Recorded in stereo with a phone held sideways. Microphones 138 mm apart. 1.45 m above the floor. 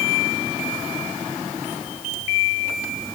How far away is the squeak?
No squeak in this recording.